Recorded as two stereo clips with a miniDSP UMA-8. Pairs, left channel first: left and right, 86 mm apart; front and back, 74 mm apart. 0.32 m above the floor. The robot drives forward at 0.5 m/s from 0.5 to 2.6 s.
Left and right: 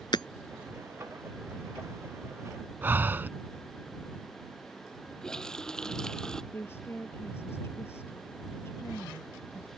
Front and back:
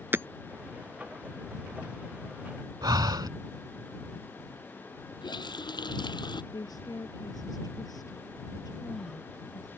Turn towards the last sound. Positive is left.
turn(degrees=30)